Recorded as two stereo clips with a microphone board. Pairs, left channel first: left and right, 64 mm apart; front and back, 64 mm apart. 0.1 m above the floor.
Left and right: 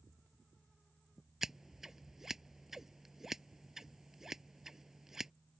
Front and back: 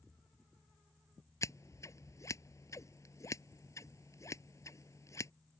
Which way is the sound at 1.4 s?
5° right.